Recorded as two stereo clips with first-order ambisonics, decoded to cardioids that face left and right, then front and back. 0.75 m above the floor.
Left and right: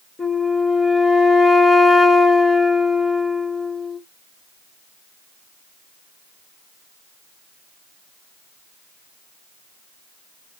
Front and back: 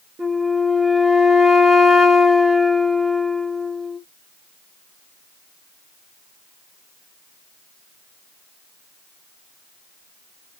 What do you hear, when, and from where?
0.2 s a flute: 160° left, 0.8 m